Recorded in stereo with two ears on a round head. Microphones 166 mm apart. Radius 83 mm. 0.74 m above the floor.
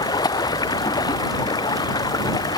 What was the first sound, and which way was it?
Running water, 20° left (ahead or behind).